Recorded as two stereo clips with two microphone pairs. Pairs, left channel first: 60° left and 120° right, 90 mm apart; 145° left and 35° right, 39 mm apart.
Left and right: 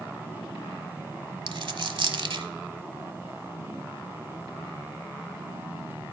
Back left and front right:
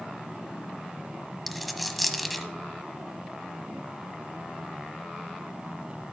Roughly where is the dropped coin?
Behind right.